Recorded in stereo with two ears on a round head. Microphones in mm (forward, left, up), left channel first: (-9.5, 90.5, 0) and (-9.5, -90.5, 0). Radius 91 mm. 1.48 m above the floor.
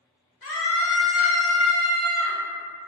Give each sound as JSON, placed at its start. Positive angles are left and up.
{"t": 0.4, "sound": "a scream", "side_deg": 40, "distance_m": 0.9}